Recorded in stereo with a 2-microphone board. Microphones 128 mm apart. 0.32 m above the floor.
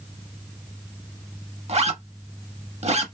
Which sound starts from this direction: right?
A zipper, at 1.7 s.